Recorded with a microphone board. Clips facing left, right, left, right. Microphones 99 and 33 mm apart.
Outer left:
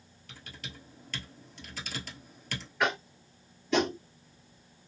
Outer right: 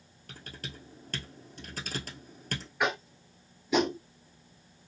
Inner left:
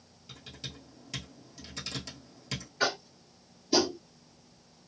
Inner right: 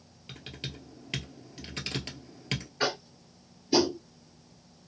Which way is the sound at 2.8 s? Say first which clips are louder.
Outer left 1 dB, inner left 2 dB; 5° right (ahead or behind).